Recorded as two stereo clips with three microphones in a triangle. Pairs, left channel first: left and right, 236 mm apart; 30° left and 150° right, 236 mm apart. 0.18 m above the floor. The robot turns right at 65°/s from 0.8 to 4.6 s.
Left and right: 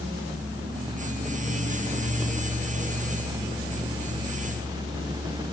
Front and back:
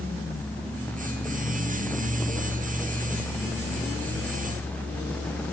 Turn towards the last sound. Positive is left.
No sound to turn to.